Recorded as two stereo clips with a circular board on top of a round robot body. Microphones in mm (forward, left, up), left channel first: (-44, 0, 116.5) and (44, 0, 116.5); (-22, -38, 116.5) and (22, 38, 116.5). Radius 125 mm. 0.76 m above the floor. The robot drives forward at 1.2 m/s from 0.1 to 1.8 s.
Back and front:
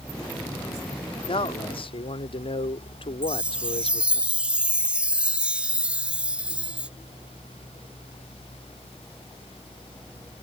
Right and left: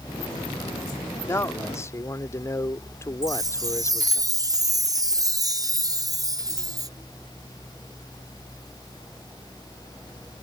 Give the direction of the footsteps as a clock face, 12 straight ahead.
I don't hear footsteps.